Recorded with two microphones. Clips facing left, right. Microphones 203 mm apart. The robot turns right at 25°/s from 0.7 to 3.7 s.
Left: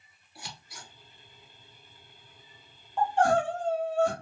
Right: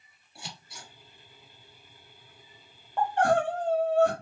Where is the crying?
65° right (ahead or behind), 1.2 m; by 4.1 s 60° right (ahead or behind), 1.2 m.